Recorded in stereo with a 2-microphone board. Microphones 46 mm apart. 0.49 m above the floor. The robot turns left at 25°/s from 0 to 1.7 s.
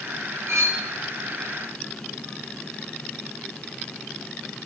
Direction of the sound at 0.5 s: 75° right (ahead or behind).